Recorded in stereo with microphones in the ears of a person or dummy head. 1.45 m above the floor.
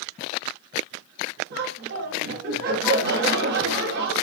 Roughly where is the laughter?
Right.